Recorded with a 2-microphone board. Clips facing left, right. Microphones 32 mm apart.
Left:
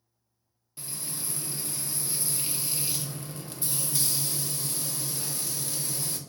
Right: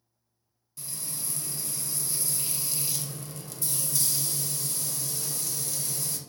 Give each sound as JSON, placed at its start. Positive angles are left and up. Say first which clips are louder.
{"t": 0.8, "sound": "frying", "louder": "left 1 dB", "side_deg": 30, "distance_m": 0.5}